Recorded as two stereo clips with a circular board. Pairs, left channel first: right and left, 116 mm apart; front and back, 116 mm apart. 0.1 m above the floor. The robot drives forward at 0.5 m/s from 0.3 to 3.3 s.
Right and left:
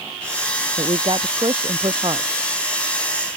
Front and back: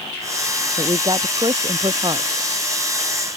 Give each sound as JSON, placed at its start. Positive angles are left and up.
{"t": 0.8, "sound": "a woman speaking", "azimuth_deg": 130}